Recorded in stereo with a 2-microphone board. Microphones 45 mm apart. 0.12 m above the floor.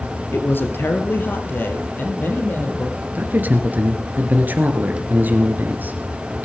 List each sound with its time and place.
0.3 s a woman speaking: 50° left (ahead or behind), 1.9 m
3.1 s a man speaking: 40° right (ahead or behind), 2 m